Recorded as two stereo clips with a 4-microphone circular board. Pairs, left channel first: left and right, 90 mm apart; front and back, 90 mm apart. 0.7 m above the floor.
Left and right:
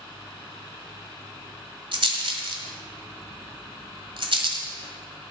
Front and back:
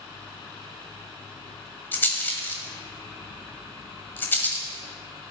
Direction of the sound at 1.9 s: 70° right.